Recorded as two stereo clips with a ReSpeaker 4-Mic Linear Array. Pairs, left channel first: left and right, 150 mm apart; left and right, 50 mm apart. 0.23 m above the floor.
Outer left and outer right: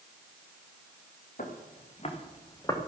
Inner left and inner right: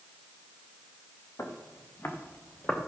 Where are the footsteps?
60° left (ahead or behind), 3.5 m; by 2.8 s 20° left (ahead or behind), 3 m.